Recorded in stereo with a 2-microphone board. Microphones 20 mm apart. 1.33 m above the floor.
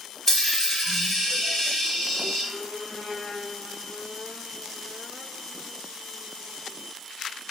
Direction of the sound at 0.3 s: 15° left (ahead or behind).